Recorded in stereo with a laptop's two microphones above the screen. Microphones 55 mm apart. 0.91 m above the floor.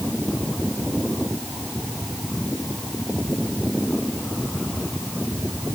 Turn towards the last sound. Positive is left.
No sound to turn to.